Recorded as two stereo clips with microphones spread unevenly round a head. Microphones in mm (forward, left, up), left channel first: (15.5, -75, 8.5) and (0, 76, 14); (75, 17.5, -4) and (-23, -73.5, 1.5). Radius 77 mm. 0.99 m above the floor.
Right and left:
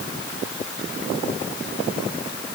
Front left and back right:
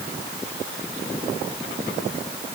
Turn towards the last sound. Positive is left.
No sound to turn to.